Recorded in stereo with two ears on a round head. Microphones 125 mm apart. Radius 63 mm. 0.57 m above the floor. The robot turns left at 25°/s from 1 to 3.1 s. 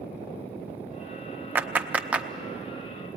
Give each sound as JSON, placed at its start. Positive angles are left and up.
{"t": 1.6, "sound": "a clap", "side_deg": -15, "distance_m": 0.5}